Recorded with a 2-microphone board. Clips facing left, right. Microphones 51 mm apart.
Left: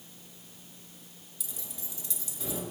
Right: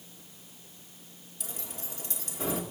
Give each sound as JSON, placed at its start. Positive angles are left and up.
{"t": 1.4, "sound": "keys jangling", "side_deg": -45, "distance_m": 1.7}